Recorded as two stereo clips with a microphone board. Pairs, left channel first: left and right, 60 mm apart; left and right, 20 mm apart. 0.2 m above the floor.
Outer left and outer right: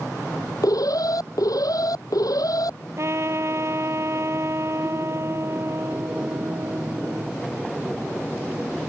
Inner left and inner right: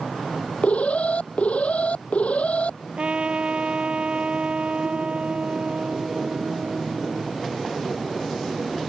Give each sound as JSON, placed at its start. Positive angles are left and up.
{"t": 0.6, "sound": "an alarm", "side_deg": 80}
{"t": 3.0, "sound": "a trumpet", "side_deg": -50}